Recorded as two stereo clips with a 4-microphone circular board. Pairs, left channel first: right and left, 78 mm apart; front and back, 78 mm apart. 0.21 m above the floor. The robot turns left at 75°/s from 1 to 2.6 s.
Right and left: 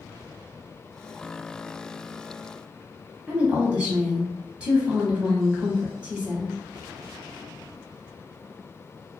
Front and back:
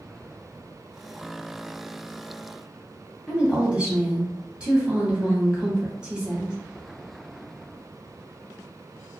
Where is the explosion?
I don't hear an explosion.